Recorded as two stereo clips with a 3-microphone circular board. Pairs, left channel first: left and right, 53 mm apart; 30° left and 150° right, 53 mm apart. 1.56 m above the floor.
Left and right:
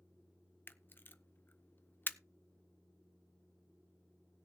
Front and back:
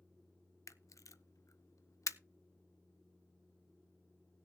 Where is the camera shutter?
40° left, 0.6 m.